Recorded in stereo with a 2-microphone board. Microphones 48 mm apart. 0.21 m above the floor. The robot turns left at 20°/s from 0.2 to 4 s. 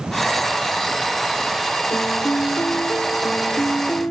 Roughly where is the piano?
Left.